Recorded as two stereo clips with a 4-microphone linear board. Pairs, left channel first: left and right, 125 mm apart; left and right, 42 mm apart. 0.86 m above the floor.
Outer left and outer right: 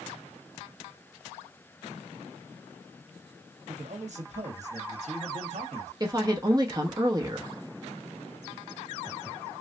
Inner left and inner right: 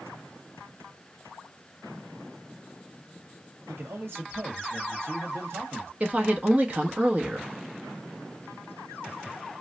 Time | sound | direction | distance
3.7 | a man speaking | 65° right (ahead or behind) | 1.0 m
6.0 | a woman speaking | 30° right (ahead or behind) | 1.1 m